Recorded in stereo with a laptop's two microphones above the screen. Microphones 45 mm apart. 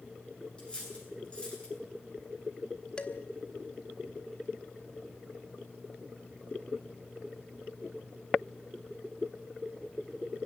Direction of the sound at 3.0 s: 20° left (ahead or behind).